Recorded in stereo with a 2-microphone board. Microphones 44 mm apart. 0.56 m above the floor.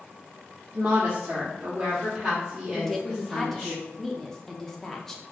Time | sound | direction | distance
0.7 | a woman speaking | 40° right (ahead or behind) | 0.9 m
2.7 | a woman speaking | 10° left (ahead or behind) | 0.6 m